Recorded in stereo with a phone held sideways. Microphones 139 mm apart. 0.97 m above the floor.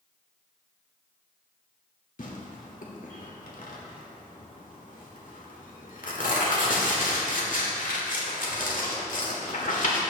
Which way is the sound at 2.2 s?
70° left (ahead or behind).